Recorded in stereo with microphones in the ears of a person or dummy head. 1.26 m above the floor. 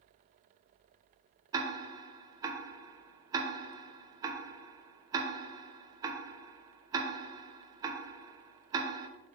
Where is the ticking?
20° right (ahead or behind), 0.7 m.